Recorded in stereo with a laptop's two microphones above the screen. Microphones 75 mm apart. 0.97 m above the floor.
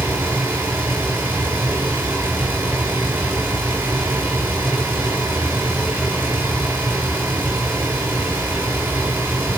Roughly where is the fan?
Right.